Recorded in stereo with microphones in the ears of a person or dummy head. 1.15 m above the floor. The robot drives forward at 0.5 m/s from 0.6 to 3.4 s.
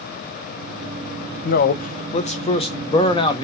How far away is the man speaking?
About 0.7 m.